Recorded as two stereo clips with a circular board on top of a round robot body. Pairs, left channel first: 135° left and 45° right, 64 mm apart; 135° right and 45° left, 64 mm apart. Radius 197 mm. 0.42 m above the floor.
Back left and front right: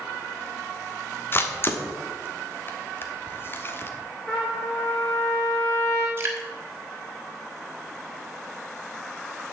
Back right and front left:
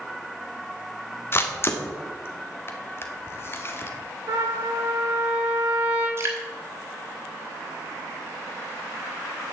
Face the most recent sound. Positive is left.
turn(degrees=5)